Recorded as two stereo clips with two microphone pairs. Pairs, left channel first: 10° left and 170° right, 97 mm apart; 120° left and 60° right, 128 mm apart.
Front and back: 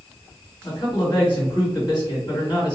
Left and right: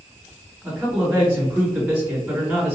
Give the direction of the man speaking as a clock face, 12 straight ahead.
11 o'clock.